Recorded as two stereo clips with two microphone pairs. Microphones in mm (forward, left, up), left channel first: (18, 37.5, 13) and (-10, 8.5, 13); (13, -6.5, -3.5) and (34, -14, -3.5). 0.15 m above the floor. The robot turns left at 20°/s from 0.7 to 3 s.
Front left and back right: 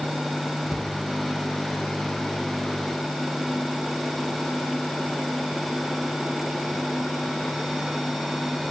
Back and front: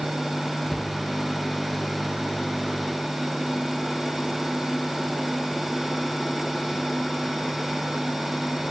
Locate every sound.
0.7 s a cupboard door: 160° right, 0.7 m; by 0.9 s 165° right, 0.7 m